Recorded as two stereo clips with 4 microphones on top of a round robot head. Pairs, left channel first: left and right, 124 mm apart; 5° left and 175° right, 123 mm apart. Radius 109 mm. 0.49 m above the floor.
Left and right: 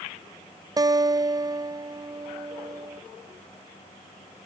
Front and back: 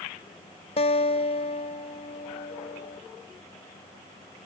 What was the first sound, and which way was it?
A guitar, 35° right.